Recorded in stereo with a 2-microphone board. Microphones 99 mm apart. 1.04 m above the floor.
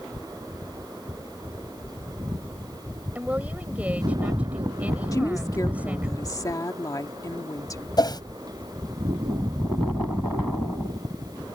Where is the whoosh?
45° left (ahead or behind).